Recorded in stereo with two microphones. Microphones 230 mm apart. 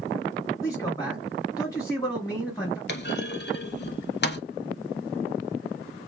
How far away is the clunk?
About 0.6 m.